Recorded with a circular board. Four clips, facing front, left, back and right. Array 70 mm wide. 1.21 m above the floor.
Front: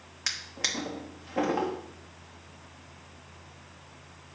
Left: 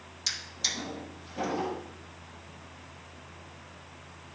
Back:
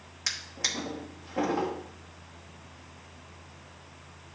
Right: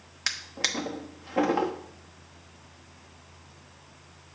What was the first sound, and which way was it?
A drawer, 70° right.